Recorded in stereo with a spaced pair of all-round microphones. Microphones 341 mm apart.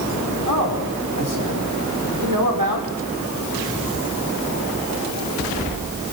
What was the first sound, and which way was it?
A man speaking, 60° right (ahead or behind).